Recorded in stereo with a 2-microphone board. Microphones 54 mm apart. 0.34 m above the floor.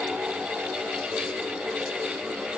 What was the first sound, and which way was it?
Only background noise.